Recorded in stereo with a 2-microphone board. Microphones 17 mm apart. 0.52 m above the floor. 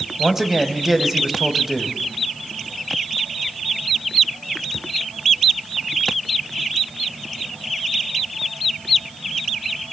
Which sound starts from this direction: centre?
A man speaking, at 0.2 s.